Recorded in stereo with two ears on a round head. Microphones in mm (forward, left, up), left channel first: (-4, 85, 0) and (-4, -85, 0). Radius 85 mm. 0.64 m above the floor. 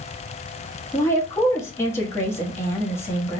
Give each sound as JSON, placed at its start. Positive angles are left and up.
{"t": 0.9, "sound": "a woman speaking", "side_deg": 15, "distance_m": 0.9}